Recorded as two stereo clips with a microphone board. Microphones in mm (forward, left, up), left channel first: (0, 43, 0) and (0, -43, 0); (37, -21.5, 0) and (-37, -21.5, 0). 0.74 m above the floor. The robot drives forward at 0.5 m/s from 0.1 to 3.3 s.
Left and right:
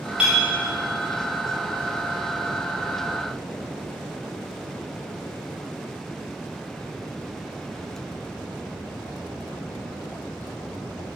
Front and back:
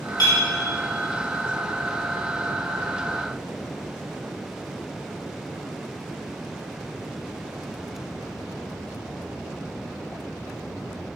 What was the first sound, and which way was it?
A clink, 10° right.